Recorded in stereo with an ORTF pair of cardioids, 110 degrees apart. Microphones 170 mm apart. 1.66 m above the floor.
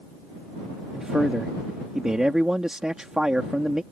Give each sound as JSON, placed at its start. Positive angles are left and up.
{"t": 0.9, "sound": "a man speaking", "azimuth_deg": -5}